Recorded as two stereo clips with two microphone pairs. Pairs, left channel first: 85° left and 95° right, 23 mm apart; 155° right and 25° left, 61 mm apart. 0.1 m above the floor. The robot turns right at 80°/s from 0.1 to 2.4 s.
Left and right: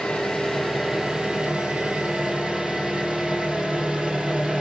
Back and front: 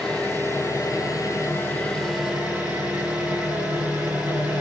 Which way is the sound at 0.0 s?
130° left.